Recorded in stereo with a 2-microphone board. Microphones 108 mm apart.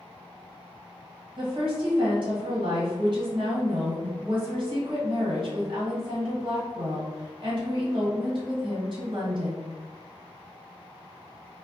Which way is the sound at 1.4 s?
50° right (ahead or behind).